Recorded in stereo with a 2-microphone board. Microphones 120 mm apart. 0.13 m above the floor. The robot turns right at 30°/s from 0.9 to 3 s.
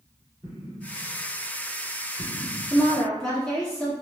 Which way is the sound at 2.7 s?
5° left (ahead or behind).